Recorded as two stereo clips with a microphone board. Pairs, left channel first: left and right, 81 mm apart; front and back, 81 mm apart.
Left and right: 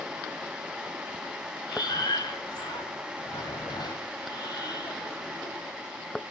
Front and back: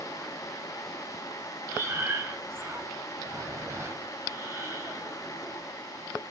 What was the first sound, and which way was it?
Breathing, 125° left.